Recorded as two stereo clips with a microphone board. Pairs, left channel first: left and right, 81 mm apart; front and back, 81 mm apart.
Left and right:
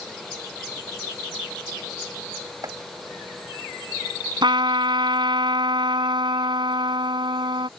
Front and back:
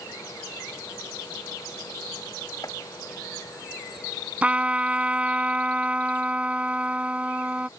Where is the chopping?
45° right.